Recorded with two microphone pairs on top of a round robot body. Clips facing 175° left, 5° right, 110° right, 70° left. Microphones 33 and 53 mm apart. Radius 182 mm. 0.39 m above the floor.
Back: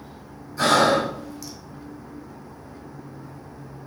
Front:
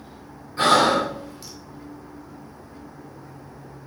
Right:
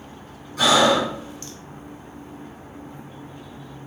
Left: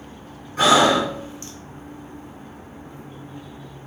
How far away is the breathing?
About 2 m.